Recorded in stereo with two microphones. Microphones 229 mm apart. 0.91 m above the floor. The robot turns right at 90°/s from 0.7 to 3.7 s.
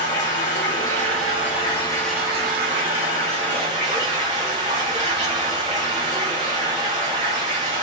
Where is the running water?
55° left, 1.4 m; by 7.8 s 35° right, 1.4 m.